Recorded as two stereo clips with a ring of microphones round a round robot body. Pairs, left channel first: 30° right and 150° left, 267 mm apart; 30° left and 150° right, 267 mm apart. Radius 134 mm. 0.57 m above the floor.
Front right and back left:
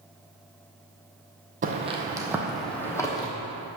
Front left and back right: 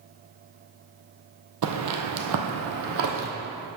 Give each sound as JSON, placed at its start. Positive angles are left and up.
{"t": 1.6, "sound": "footsteps", "azimuth_deg": -150, "distance_m": 1.1}